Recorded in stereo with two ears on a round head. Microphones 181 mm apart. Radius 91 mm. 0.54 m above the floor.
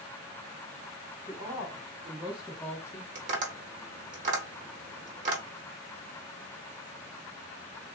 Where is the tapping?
40° right (ahead or behind), 1.1 m.